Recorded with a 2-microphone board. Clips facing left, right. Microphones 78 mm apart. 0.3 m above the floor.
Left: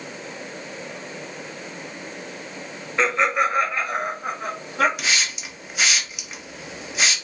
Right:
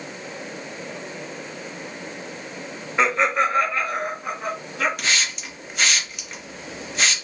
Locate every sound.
3.0 s laughter: 10° right (ahead or behind), 1.0 m; by 4.9 s 45° left (ahead or behind), 1.7 m
5.0 s a hiss: 5° left (ahead or behind), 0.6 m